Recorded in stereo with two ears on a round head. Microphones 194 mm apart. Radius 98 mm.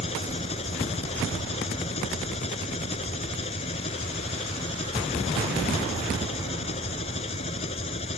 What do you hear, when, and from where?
0.0 s an engine running: 30° left (ahead or behind)